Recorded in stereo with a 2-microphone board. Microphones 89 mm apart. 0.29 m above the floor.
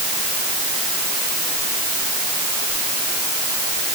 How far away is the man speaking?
I don't hear a man speaking.